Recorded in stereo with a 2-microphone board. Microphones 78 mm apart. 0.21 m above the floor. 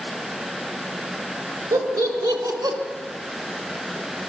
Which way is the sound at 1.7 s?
55° right (ahead or behind).